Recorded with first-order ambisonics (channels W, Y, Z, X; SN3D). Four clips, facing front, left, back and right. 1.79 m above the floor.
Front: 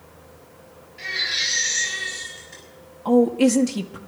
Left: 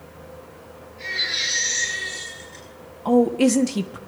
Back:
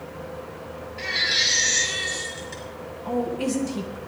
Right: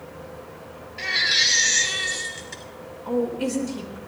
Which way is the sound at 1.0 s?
115° right.